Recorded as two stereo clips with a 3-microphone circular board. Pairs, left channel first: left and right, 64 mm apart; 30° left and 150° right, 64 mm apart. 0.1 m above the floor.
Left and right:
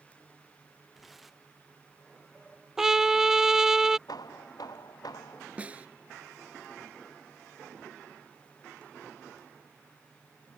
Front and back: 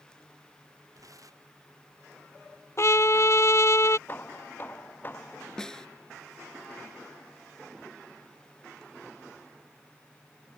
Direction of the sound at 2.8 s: 10° right.